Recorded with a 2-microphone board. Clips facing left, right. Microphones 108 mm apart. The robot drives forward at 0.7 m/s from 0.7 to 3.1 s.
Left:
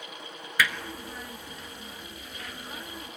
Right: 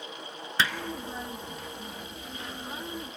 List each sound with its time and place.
0.6 s hammering: 30° right (ahead or behind), 1.1 m